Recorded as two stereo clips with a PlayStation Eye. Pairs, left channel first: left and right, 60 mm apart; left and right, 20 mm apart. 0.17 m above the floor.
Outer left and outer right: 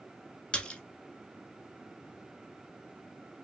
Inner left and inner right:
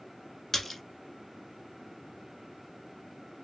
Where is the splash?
20° left (ahead or behind), 0.6 m.